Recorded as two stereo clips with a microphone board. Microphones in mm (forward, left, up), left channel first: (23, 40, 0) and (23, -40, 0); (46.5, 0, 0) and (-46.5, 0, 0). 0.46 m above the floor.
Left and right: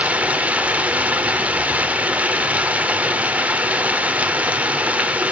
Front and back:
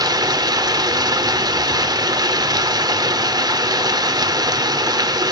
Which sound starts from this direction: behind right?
Running water, at 0.0 s.